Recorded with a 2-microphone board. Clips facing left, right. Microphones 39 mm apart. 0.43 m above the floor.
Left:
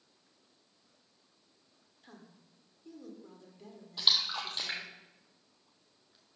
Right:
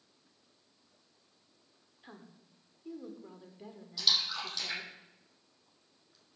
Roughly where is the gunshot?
I don't hear a gunshot.